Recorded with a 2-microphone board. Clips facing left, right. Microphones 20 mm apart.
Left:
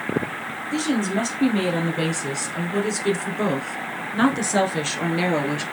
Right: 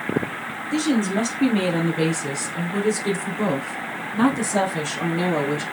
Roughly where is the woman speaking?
Centre.